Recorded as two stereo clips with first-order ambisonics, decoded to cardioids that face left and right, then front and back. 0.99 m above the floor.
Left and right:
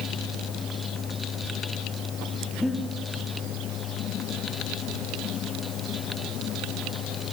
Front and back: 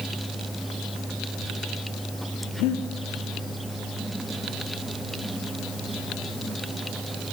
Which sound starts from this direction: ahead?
Breathing, at 2.6 s.